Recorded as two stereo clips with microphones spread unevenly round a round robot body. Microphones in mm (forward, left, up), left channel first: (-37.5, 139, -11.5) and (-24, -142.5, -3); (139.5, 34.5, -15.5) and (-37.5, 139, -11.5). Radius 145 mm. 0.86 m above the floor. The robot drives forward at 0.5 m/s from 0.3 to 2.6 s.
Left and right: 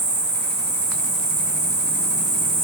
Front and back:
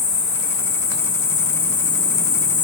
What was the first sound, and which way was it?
An insect, straight ahead.